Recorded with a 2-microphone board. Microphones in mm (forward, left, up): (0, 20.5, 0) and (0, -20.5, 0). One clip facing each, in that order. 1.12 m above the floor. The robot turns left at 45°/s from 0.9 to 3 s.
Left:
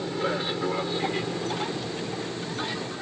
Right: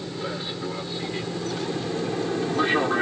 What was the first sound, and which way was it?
An aircraft, 20° left (ahead or behind).